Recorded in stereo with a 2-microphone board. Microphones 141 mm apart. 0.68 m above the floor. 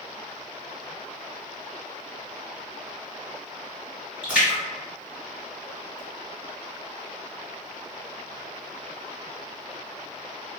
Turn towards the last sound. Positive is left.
turn(degrees=-10)  # may be behind; listen again after turning